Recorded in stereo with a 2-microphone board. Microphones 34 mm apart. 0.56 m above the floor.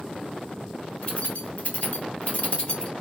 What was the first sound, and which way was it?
Keys jangling, 35° left (ahead or behind).